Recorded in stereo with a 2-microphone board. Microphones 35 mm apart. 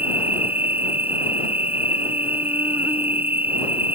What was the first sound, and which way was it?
An insect, 75° right (ahead or behind).